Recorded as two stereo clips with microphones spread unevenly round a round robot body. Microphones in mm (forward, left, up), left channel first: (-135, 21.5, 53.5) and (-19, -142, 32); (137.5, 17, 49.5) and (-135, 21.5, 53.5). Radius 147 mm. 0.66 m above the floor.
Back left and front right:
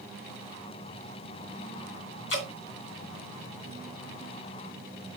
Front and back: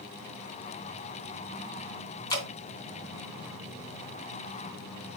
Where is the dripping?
75° left, 2.5 m.